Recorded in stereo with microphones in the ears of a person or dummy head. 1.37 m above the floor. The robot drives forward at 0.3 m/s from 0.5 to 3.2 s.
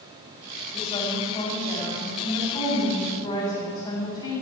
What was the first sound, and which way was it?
A woman speaking, 20° left (ahead or behind).